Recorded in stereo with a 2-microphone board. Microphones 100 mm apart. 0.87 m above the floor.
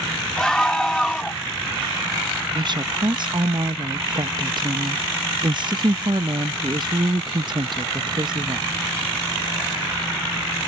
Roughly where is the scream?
Centre.